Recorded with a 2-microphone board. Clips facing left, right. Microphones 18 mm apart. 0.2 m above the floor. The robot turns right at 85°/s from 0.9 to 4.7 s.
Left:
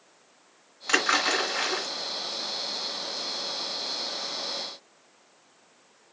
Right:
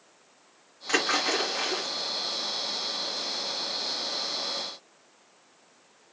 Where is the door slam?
I don't hear a door slam.